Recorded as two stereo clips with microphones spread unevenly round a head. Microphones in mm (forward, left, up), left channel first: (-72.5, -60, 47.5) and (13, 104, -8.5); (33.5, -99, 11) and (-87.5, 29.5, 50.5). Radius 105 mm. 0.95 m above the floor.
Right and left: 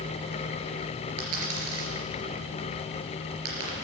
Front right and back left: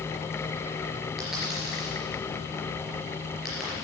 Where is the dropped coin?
50° left, 3.5 m.